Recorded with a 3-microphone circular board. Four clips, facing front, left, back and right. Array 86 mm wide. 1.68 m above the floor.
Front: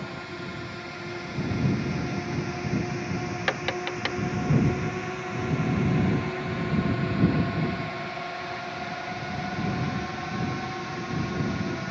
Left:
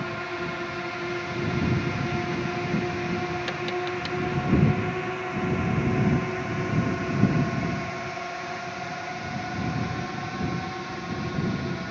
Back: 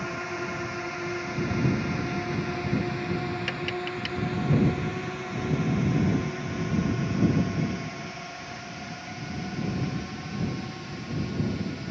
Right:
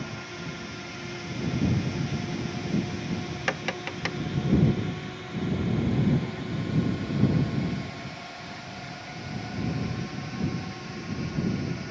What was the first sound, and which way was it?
A drone, 125° left.